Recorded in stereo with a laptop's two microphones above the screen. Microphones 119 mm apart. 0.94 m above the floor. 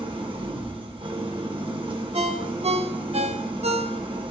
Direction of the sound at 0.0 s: 45° right (ahead or behind).